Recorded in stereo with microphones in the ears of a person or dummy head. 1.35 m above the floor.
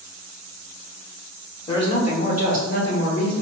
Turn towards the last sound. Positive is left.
turn(degrees=55)  # may be behind; listen again after turning